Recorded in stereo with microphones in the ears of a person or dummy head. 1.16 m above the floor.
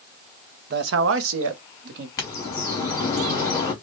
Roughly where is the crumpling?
I don't hear crumpling.